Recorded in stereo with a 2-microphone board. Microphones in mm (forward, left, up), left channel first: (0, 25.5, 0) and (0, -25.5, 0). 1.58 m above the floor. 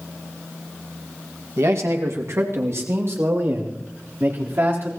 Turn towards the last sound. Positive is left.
turn(degrees=-45)  # may be behind; listen again after turning